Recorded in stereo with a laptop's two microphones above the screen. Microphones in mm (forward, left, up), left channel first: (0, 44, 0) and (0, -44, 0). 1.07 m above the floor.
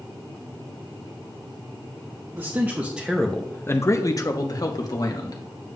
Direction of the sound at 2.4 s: 30° right (ahead or behind).